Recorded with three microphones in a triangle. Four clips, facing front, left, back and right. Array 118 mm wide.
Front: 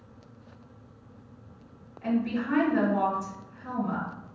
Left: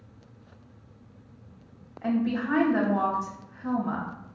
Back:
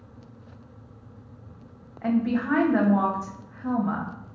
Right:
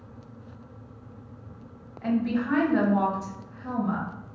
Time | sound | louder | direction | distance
2.0 | a woman speaking | right 1 dB, back 4 dB | 175° left | 0.7 m